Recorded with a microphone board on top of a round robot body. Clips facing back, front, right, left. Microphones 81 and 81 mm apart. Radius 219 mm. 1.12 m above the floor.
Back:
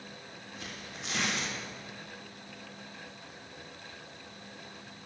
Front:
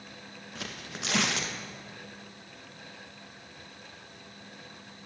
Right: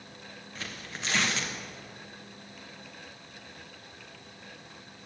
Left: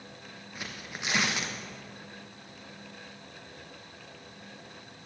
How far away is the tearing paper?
About 1.4 m.